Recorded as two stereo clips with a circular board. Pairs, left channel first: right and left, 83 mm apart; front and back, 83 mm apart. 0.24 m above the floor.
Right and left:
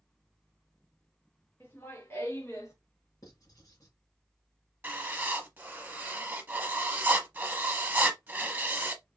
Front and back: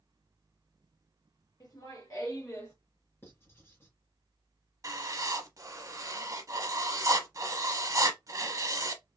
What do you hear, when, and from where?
1.6 s laughter: 30° right, 2.5 m; by 2.8 s 50° right, 2 m
3.2 s writing: 55° right, 2.0 m
4.8 s writing: 150° left, 0.8 m